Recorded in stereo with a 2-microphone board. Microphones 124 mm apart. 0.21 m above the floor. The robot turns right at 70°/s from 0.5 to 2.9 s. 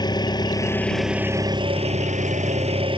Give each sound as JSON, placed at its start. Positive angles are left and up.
{"t": 0.0, "sound": "an engine running", "azimuth_deg": 145}